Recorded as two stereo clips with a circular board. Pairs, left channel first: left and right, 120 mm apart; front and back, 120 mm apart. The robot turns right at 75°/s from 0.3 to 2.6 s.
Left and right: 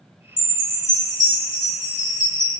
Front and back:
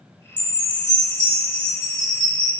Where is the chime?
45° left, 1.8 m; by 2.5 s 150° right, 1.8 m.